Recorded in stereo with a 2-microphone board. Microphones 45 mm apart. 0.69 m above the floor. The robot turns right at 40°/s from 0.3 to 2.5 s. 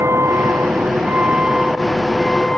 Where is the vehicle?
70° right (ahead or behind); by 2.6 s 20° left (ahead or behind).